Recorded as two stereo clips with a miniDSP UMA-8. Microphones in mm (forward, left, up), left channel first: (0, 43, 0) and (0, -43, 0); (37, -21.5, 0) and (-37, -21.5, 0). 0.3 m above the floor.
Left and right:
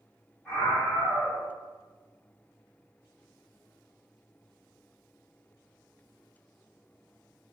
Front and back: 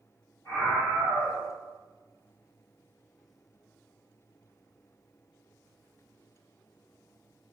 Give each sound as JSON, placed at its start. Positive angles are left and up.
{"t": 0.5, "sound": "a scream", "azimuth_deg": 5, "distance_m": 1.2}